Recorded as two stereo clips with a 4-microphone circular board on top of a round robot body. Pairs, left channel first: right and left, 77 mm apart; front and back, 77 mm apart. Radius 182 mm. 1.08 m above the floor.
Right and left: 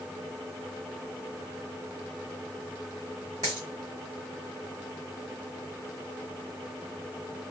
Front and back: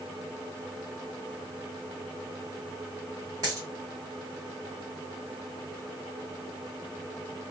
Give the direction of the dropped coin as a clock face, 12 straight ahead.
8 o'clock.